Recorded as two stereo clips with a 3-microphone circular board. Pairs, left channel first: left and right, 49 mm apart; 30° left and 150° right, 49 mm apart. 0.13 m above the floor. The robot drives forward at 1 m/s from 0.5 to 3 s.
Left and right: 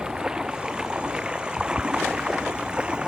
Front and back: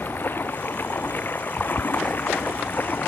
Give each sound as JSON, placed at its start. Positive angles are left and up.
{"t": 0.0, "sound": "running water", "azimuth_deg": -15}